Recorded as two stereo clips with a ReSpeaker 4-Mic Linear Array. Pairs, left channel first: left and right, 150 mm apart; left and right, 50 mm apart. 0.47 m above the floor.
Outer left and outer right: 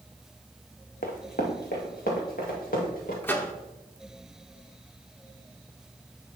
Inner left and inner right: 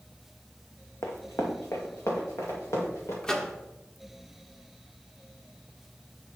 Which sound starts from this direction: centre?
A microwave, at 3.2 s.